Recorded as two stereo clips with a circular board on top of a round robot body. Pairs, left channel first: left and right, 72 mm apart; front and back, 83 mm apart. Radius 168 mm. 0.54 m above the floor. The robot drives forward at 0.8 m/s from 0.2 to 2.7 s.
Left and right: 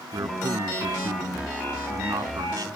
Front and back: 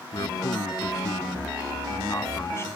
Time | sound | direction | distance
0.1 | a man speaking | 45° right | ?